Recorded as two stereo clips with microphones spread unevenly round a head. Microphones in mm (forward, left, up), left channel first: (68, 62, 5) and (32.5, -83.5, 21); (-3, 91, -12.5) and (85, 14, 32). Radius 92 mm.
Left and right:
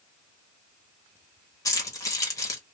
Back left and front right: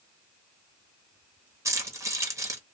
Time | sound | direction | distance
1.6 | keys jangling | 5° left | 1.5 m